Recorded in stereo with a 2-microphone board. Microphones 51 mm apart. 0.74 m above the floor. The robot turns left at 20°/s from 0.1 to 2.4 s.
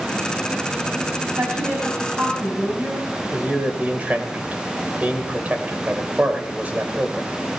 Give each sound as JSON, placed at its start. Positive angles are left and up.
{"t": 1.4, "sound": "a woman speaking", "side_deg": -55, "distance_m": 4.5}
{"t": 3.3, "sound": "a man speaking", "side_deg": -30, "distance_m": 2.5}